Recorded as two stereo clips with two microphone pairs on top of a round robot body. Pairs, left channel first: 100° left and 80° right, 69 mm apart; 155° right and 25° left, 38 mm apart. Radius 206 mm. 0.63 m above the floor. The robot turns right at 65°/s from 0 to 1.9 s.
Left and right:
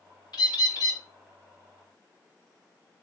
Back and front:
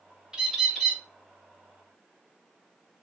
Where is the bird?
95° left, 2 m; by 1.0 s 140° left, 2 m.